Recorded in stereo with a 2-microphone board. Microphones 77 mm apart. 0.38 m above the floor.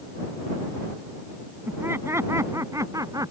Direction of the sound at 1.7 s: 30° right (ahead or behind).